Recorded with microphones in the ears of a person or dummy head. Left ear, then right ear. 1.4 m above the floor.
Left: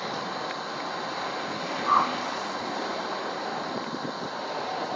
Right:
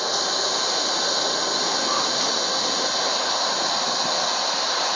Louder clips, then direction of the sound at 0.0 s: Right 9 dB; 85° right.